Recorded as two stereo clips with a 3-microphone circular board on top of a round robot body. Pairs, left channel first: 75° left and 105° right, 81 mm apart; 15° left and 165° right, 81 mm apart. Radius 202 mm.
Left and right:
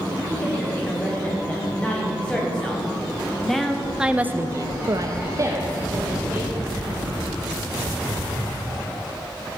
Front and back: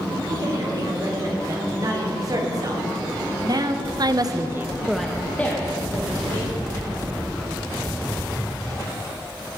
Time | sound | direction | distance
0.3 | a woman speaking | 145° left | 4 m